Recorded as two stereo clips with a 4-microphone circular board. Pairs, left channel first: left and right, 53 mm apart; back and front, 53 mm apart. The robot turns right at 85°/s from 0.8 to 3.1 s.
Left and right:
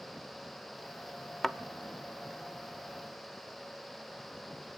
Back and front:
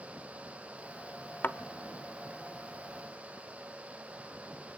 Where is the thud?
175° left, 0.6 m; by 1.6 s 175° right, 0.6 m.